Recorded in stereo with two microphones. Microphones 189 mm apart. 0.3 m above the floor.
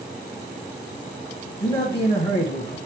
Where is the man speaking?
25° left (ahead or behind), 1.2 m.